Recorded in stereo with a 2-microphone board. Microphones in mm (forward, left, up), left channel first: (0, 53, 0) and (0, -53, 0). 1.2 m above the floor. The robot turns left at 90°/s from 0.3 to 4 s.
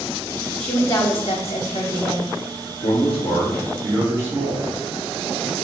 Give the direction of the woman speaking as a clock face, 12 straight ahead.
6 o'clock.